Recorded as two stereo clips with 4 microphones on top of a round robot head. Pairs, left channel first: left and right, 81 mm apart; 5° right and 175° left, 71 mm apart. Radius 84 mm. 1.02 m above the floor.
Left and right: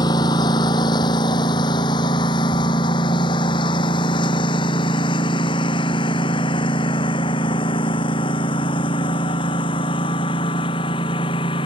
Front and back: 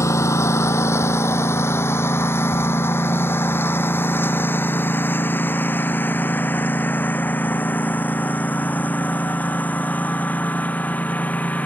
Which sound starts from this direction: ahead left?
A lawn mower, at 0.0 s.